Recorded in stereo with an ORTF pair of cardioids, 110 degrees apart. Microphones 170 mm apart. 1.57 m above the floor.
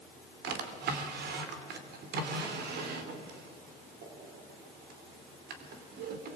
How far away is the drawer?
About 3 m.